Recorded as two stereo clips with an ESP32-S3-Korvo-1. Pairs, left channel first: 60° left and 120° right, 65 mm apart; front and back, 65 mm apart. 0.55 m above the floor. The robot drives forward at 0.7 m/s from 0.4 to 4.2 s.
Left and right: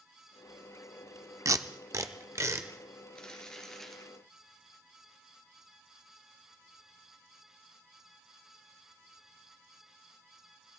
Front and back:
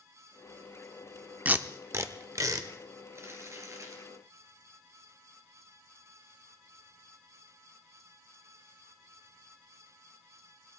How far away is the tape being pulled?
About 0.6 m.